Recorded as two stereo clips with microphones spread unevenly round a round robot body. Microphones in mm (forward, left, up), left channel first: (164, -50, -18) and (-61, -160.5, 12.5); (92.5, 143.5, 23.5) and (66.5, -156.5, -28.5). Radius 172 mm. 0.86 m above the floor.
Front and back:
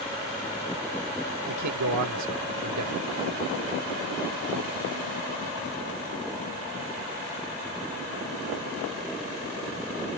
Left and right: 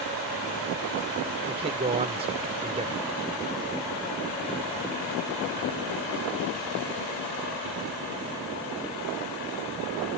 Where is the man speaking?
170° right.